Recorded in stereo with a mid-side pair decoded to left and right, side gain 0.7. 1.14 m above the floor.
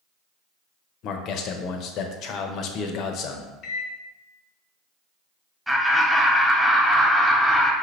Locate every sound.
1.0 s a man speaking: 55° left, 0.8 m
3.6 s a microwave: 50° left, 0.7 m
5.7 s laughter: 5° right, 1.3 m